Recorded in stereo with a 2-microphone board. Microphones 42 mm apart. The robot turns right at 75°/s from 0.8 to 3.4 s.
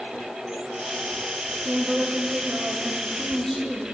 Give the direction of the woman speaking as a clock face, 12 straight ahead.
4 o'clock.